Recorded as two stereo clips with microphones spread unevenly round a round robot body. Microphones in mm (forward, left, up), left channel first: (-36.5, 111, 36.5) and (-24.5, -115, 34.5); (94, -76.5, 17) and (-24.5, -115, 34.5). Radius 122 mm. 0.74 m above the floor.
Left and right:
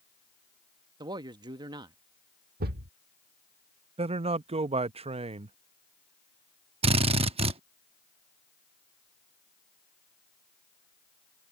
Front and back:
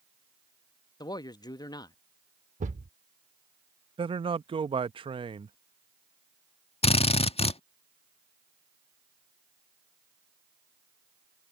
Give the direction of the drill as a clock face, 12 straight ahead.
1 o'clock.